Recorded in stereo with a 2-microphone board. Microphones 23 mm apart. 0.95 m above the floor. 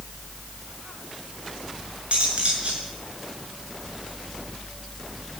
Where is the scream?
I don't hear a scream.